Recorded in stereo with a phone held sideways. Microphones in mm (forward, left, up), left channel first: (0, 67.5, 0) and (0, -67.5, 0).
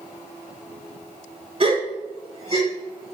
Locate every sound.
1.6 s a gasp: 40° right (ahead or behind), 6 m